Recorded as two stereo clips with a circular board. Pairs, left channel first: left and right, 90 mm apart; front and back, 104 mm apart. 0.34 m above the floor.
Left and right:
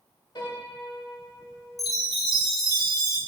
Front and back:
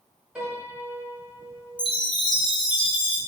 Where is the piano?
100° left, 1.6 m.